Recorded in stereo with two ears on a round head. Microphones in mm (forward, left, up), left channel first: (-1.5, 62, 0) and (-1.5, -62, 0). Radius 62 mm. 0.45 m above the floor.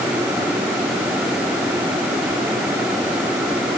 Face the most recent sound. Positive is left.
No sound to turn to.